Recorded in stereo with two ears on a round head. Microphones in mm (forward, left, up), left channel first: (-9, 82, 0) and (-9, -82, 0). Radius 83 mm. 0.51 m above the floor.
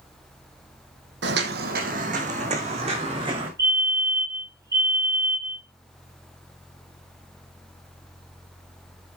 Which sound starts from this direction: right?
Footsteps, at 1.2 s.